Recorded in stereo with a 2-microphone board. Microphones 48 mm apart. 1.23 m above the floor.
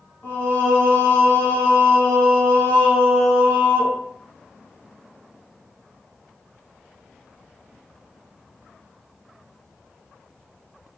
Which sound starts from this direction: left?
Singing, at 0.2 s.